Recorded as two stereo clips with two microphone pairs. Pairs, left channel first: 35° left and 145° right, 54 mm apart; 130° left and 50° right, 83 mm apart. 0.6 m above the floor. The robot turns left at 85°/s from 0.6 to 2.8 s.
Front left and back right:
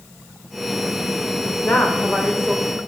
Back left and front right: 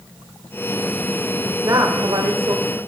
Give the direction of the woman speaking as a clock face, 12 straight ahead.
12 o'clock.